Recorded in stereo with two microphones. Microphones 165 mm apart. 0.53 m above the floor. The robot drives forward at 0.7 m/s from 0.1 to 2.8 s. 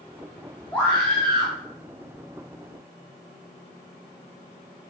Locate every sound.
0.7 s a scream: 10° left (ahead or behind), 2 m; by 1.6 s 5° left (ahead or behind), 2.5 m